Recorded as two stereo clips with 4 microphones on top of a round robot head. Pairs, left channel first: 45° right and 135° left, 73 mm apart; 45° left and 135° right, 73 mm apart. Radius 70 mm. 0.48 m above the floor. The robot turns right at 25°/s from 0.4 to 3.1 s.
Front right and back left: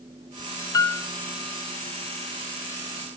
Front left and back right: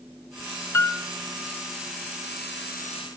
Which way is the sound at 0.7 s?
10° right.